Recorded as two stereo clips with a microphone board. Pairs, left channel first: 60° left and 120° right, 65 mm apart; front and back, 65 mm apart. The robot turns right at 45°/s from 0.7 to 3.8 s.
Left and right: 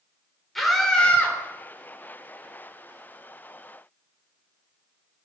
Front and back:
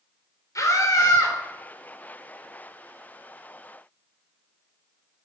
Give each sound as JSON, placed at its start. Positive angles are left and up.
{"t": 0.6, "sound": "a scream", "azimuth_deg": -30, "distance_m": 4.5}